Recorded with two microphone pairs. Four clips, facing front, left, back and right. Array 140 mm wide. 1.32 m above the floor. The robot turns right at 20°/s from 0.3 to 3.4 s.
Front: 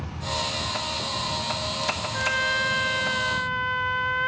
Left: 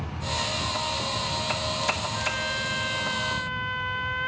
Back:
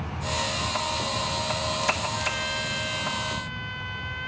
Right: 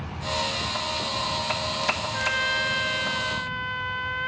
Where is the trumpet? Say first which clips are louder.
Right 3 dB, front 4 dB; 15° right; by 4.3 s 10° left.